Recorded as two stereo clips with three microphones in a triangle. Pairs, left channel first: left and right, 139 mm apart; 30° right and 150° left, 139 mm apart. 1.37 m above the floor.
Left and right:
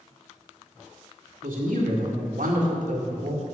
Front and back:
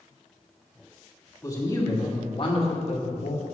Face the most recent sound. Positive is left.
turn(degrees=-50)